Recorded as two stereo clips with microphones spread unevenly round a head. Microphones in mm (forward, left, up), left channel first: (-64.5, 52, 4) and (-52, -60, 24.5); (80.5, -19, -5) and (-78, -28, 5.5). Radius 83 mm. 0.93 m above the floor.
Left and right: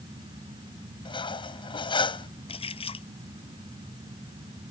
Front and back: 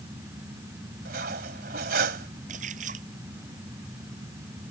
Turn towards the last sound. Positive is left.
turn(degrees=135)